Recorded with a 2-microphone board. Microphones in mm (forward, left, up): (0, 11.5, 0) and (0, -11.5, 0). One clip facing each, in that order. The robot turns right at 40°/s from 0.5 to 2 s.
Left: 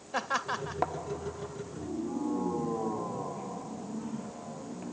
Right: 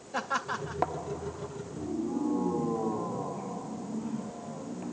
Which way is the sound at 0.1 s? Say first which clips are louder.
Even; 20° left (ahead or behind).